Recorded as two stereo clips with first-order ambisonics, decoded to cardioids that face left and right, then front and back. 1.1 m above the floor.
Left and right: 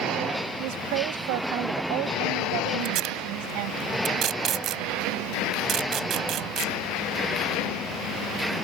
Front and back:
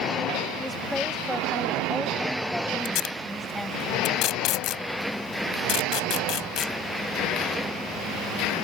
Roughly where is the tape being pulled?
Ahead right.